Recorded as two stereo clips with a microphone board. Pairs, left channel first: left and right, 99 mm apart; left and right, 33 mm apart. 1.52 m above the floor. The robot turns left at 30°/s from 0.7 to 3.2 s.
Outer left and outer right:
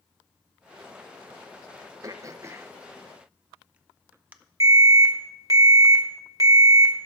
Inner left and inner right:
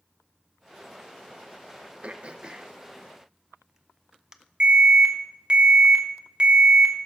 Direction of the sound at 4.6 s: 35° right (ahead or behind).